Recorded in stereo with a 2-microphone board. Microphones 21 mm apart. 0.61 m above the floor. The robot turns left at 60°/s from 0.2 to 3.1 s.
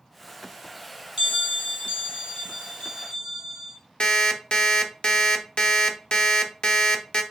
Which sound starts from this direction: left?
An alarm clock, at 4.0 s.